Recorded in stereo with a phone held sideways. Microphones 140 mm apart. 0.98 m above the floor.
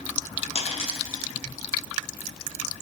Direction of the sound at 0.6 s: 45° left (ahead or behind).